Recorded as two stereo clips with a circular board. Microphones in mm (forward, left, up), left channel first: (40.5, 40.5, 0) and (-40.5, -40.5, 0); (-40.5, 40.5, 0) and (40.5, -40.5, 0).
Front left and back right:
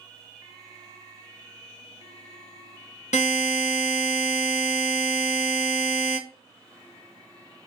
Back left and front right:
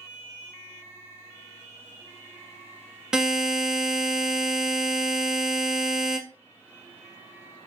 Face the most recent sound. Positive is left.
turn(degrees=40)